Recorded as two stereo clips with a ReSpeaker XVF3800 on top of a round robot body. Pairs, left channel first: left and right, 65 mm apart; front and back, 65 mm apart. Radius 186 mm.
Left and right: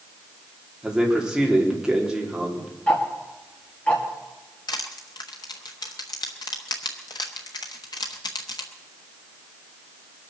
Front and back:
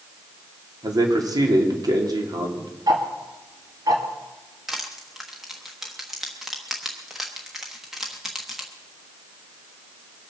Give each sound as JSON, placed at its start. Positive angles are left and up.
{"t": 0.8, "sound": "a man speaking", "azimuth_deg": -170, "distance_m": 3.0}
{"t": 2.9, "sound": "ticking", "azimuth_deg": 160, "distance_m": 2.0}
{"t": 4.7, "sound": "crushing", "azimuth_deg": 95, "distance_m": 0.6}